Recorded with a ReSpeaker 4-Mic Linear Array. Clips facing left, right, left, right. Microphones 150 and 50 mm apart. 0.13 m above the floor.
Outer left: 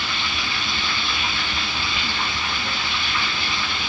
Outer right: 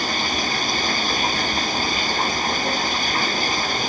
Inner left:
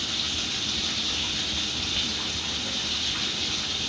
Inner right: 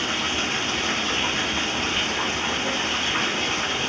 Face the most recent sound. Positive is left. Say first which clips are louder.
# outer right 5 dB, inner right 7 dB
turn(degrees=-40)  # may be behind; listen again after turning